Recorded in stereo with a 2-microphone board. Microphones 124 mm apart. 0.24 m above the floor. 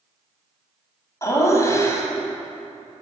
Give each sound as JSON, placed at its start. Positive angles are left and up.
{"t": 1.2, "sound": "laughter", "side_deg": 25, "distance_m": 1.6}